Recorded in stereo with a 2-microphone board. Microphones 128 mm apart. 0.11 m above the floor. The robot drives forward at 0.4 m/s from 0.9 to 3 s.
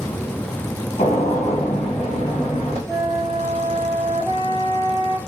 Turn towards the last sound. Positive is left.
turn(degrees=-15)  # may be behind; listen again after turning